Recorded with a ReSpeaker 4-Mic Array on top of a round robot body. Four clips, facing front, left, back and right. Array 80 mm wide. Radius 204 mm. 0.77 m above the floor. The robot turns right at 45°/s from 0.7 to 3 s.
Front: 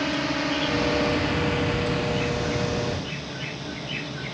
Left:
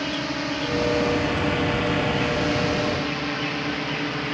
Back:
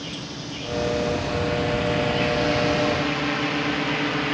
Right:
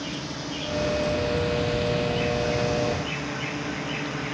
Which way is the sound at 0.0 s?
40° left.